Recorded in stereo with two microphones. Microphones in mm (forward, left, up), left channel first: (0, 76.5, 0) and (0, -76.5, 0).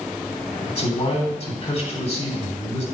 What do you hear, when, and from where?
0.7 s a man speaking: 45° left (ahead or behind), 3.5 m